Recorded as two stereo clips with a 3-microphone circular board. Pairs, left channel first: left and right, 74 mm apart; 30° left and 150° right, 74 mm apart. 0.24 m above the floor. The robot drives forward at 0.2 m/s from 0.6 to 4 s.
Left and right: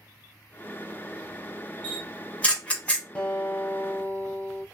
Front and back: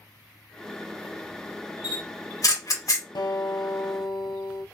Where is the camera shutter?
15° left, 1.0 m; by 3.0 s 25° left, 0.8 m.